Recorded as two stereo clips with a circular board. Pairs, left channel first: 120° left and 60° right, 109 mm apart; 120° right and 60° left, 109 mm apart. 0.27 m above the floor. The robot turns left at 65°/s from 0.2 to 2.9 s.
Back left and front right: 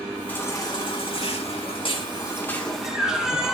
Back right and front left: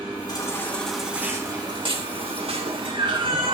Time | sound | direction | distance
0.3 | a baby crying | 165° right | 2 m